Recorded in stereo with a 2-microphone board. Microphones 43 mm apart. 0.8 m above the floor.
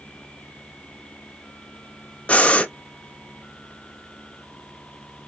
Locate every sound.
2.3 s breathing: 30° left (ahead or behind), 0.5 m